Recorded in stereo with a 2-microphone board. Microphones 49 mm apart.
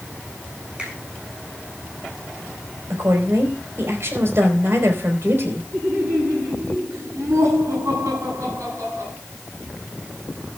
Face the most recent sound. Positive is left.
turn(degrees=-80)